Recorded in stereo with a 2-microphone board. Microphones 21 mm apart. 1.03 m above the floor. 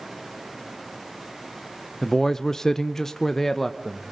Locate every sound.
2.0 s a man speaking: 20° left (ahead or behind), 0.6 m; by 4.0 s 10° left (ahead or behind), 1.0 m